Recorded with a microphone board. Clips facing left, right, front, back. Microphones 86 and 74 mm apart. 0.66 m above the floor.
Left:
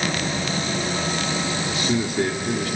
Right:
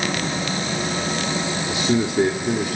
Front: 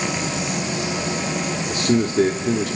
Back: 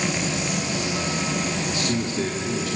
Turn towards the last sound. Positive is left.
turn(degrees=-25)